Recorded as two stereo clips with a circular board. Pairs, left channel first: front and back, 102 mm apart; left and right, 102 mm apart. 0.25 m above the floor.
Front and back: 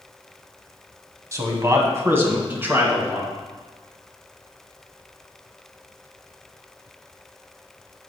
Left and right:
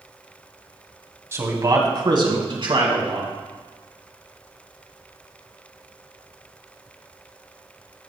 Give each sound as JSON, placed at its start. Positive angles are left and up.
{"t": 1.3, "sound": "a man speaking", "azimuth_deg": -140, "distance_m": 1.4}